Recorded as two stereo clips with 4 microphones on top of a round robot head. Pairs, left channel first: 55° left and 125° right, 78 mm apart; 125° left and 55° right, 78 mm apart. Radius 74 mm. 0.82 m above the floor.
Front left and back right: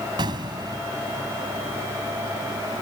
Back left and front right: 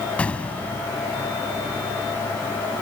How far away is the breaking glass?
I don't hear breaking glass.